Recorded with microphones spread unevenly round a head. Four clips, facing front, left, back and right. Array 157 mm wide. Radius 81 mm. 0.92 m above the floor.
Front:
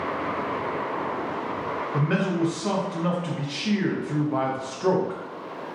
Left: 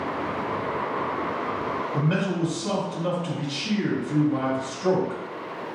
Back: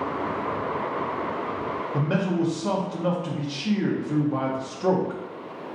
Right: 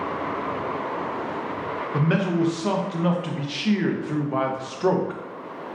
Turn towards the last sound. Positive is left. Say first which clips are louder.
# right 5 dB, even
turn(degrees=-90)